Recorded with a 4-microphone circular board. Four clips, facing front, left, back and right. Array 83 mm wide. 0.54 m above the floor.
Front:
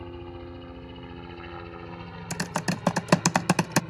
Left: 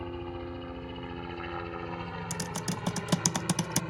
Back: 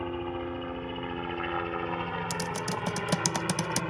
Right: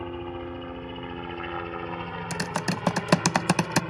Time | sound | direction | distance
0.0 | a helicopter | 155° right | ?
2.3 | typing on a keyboard | 35° right | ?